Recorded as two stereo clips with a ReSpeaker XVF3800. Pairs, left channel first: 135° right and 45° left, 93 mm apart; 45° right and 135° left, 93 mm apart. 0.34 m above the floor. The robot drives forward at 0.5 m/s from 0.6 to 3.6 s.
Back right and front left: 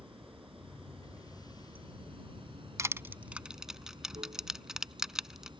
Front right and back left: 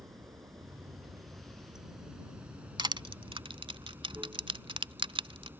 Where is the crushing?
100° left; by 5.5 s 130° left.